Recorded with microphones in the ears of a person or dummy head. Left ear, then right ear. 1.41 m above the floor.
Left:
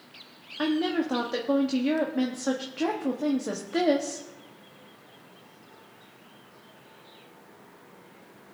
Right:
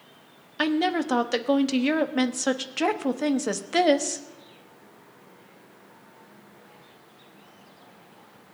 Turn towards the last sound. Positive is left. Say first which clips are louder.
# right 3 dB
turn(degrees=-55)  # may be behind; listen again after turning